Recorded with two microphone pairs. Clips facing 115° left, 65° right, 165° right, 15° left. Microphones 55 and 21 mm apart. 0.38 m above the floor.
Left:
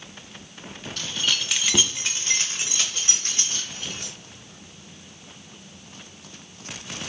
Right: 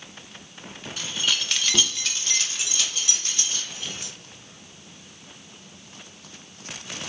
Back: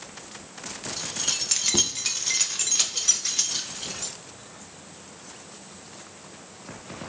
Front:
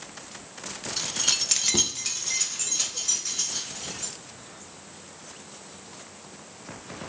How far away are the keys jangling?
About 0.6 m.